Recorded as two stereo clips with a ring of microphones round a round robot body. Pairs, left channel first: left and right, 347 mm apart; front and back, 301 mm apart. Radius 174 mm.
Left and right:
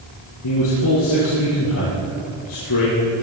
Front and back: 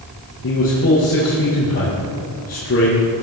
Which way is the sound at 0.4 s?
50° left.